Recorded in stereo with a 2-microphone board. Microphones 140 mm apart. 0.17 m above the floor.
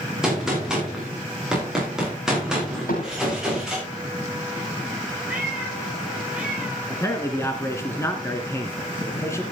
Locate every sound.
0.2 s a gunshot: 5° right (ahead or behind), 7.5 m
2.9 s hammering: 80° left, 9.5 m
5.3 s a cat meowing: 5° right (ahead or behind), 9.5 m
6.9 s a man speaking: 20° left (ahead or behind), 2 m